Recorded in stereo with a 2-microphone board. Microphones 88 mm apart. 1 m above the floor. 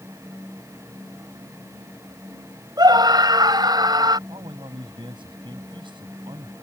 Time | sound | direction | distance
2.8 | a scream | 50° right (ahead or behind) | ?
4.3 | a man speaking | 70° right (ahead or behind) | ?